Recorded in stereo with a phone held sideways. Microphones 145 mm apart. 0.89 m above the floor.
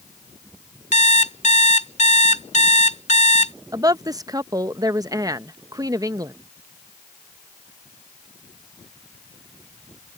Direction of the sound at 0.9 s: 55° left (ahead or behind).